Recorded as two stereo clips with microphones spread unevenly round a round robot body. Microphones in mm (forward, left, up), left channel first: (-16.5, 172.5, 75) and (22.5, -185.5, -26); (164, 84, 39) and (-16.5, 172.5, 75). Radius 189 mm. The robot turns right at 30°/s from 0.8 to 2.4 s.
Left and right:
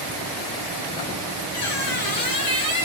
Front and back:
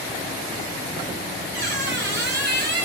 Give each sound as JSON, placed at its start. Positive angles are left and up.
{"t": 1.5, "sound": "a squeak", "azimuth_deg": 130, "distance_m": 1.7}